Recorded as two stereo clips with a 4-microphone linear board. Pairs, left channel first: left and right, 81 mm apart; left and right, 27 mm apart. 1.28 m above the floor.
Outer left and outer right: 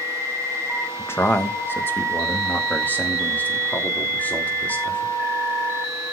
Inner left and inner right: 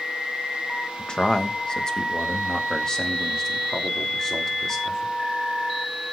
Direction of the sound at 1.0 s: 35° left (ahead or behind).